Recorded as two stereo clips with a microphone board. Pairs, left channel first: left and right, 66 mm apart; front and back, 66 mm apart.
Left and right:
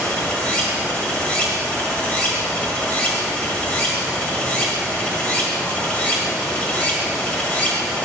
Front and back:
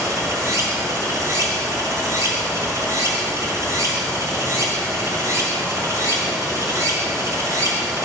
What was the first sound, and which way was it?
Running water, 155° left.